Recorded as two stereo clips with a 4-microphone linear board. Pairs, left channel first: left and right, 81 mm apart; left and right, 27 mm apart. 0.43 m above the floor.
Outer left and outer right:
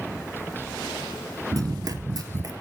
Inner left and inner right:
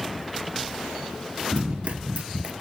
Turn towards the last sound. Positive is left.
turn(degrees=-50)  # may be behind; listen again after turning